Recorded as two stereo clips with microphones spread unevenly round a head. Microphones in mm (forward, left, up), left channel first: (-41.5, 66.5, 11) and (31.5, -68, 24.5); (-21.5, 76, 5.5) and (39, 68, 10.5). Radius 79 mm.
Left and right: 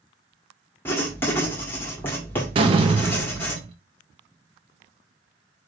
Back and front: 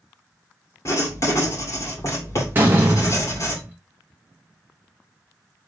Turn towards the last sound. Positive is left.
turn(degrees=-40)